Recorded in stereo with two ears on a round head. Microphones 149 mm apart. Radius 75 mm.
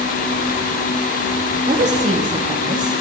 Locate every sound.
1.7 s a woman speaking: 45° right (ahead or behind), 1.6 m